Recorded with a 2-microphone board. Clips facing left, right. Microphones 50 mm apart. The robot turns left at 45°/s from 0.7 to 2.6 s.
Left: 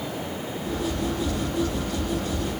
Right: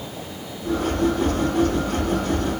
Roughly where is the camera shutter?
I don't hear a camera shutter.